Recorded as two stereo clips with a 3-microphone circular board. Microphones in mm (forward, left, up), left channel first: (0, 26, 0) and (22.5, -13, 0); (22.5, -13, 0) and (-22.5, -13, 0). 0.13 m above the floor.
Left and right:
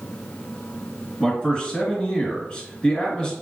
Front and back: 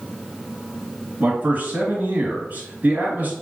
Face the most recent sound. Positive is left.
turn(degrees=180)